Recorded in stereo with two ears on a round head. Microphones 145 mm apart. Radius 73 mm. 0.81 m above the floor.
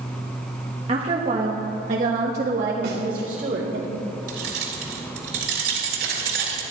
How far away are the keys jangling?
About 2.5 m.